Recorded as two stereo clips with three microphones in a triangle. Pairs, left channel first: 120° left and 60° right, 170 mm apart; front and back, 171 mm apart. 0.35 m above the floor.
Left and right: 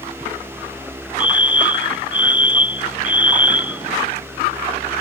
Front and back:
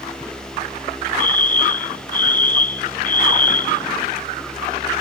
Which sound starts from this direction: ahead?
A fire alarm, at 1.2 s.